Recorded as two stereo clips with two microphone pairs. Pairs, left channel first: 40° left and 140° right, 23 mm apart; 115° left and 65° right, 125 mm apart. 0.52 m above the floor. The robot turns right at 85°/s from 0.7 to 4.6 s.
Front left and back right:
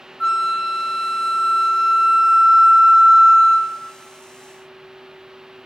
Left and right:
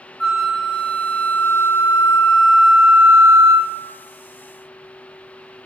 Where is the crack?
No crack in this recording.